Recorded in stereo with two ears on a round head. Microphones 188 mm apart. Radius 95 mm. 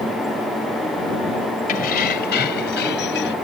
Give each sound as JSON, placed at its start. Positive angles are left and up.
{"t": 1.7, "sound": "keys jangling", "side_deg": 45}